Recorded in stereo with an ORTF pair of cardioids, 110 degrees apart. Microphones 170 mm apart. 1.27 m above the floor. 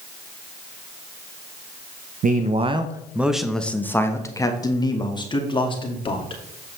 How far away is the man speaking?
About 0.7 m.